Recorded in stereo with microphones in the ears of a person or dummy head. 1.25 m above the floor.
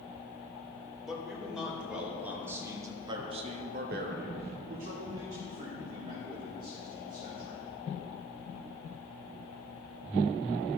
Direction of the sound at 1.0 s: Centre (ahead or behind).